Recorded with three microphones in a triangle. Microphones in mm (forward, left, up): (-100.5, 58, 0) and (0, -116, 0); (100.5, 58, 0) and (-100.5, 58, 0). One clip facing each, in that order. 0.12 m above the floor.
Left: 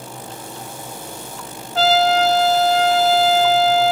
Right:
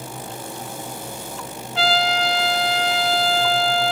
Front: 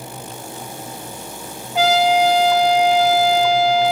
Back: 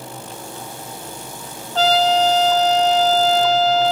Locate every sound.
1.8 s a trumpet: 80° left, 0.8 m